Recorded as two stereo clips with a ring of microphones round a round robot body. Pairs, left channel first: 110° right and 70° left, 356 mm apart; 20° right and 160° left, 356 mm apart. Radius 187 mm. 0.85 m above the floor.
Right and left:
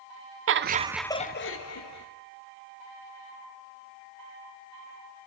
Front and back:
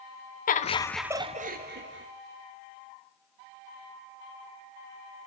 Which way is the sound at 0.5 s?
35° left.